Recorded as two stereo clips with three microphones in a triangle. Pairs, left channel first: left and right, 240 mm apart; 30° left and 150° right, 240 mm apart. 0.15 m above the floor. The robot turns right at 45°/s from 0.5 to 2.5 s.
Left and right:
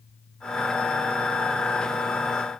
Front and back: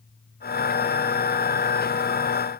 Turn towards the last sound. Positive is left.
No sound to turn to.